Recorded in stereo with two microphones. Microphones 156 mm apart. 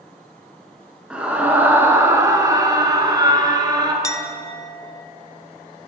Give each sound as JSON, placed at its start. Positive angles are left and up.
{"t": 1.1, "sound": "a scream", "side_deg": -5, "distance_m": 1.3}
{"t": 4.0, "sound": "a clink", "side_deg": 20, "distance_m": 0.6}